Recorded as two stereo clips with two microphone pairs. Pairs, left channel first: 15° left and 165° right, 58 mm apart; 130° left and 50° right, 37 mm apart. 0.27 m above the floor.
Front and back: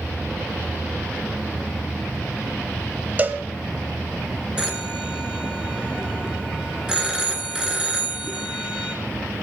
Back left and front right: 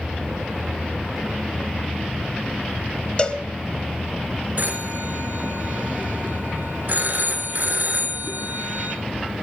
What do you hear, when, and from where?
3.2 s a cowbell: 170° left, 0.8 m
4.6 s a phone ringing: 85° right, 2 m